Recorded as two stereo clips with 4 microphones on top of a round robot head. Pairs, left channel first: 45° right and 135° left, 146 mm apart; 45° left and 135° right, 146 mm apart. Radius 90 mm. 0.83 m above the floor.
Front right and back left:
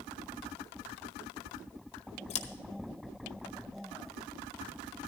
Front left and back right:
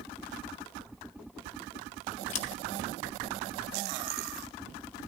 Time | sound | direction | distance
2.3 | scissors | 5° left | 1.4 m